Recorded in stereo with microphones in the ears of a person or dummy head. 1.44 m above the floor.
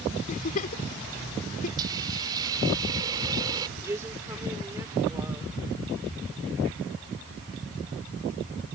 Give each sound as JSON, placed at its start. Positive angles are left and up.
{"t": 0.3, "sound": "a giggle", "side_deg": 45}
{"t": 1.8, "sound": "a hiss", "side_deg": -25}
{"t": 3.8, "sound": "a woman speaking", "side_deg": -15}